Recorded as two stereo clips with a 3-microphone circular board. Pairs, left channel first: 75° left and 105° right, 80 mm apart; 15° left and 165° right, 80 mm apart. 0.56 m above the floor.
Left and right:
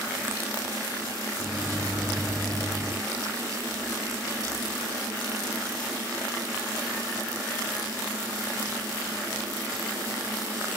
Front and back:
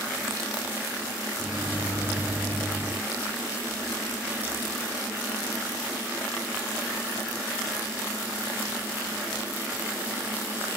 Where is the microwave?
175° right, 0.6 m.